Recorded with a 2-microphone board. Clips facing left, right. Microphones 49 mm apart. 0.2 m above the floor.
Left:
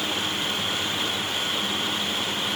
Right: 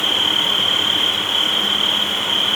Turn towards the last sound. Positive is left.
turn(degrees=-75)  # may be behind; listen again after turning